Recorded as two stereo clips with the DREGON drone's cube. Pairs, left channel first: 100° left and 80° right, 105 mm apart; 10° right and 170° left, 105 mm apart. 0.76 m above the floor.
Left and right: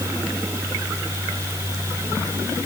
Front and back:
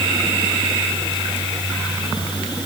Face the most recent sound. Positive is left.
No sound to turn to.